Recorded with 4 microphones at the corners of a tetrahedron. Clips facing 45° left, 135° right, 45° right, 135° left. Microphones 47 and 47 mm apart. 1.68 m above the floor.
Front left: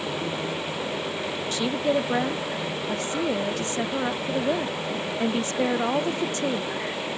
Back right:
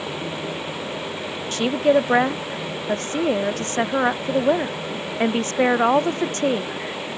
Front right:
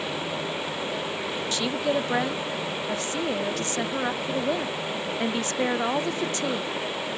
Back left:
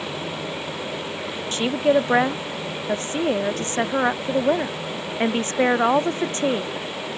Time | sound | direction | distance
1.5 | a woman speaking | 170° right | ?